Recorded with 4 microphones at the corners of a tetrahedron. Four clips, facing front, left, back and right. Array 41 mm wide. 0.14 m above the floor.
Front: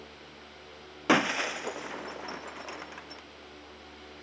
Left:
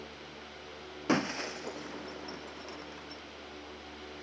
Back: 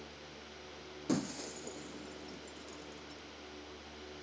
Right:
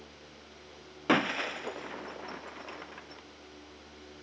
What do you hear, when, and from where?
1.1 s breaking glass: 20° right